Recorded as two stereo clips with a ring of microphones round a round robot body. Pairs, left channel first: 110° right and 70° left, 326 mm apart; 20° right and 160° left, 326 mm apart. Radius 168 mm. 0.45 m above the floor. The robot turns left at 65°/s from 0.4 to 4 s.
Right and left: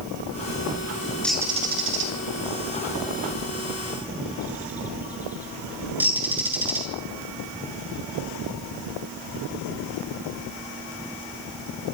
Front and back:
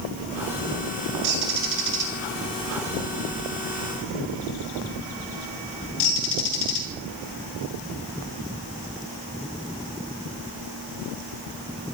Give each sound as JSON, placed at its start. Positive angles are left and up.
{"t": 1.2, "sound": "a bird", "azimuth_deg": 160, "distance_m": 7.5}